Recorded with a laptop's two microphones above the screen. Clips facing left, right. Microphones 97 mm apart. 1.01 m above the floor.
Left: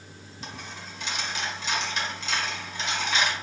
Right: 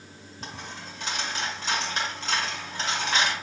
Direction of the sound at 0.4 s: 45° right (ahead or behind).